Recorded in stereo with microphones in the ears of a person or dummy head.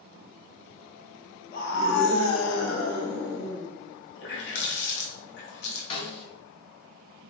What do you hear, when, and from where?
1.5 s a scream: 45° left (ahead or behind), 1.1 m
4.2 s a running tap: 65° left (ahead or behind), 1.0 m
5.9 s a snare drum: 35° left (ahead or behind), 1.0 m